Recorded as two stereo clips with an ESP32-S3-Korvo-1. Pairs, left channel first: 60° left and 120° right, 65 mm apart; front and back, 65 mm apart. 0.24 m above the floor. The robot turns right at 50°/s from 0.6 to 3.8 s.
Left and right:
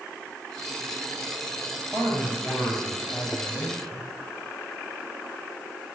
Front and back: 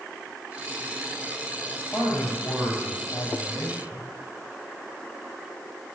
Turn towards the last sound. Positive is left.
turn(degrees=25)